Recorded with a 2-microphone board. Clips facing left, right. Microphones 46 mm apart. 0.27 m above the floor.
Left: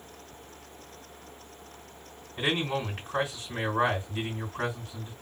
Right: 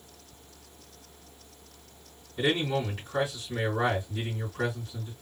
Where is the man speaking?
35° left (ahead or behind), 2.5 m.